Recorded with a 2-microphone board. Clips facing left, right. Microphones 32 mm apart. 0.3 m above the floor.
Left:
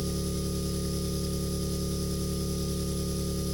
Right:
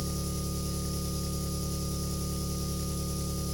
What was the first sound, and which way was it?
An engine running, 45° left (ahead or behind).